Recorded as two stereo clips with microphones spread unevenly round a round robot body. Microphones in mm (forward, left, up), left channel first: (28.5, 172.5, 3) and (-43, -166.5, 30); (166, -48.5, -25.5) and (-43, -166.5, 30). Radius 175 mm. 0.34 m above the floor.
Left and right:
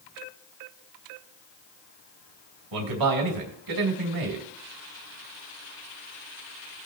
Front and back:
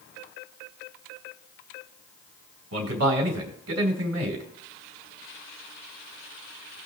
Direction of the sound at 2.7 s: 130° right.